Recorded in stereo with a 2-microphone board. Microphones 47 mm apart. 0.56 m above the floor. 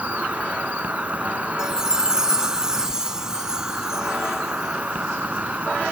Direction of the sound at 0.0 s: 30° right (ahead or behind).